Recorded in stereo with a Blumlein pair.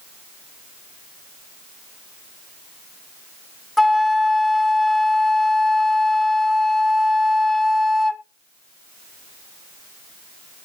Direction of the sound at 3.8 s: 5° left.